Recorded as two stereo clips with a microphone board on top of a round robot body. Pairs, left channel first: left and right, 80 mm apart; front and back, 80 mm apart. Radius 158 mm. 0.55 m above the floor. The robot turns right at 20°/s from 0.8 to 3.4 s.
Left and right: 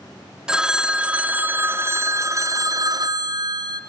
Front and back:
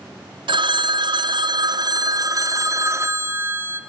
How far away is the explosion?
I don't hear an explosion.